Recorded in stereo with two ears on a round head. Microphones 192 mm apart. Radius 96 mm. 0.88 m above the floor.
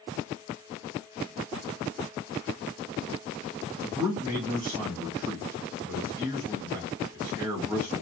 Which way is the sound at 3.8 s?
15° right (ahead or behind).